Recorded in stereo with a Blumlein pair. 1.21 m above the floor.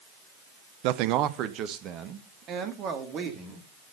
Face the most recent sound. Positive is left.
turn(degrees=-30)